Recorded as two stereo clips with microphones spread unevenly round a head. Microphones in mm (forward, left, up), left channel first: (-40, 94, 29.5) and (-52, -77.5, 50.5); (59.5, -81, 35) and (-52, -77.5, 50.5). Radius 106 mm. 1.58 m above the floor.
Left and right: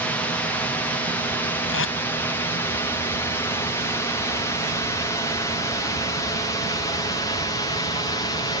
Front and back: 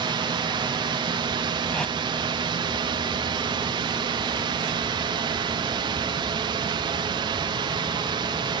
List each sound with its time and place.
0.0 s a drone: 155° left; by 8.6 s 140° left
1.7 s tape being pulled: 85° left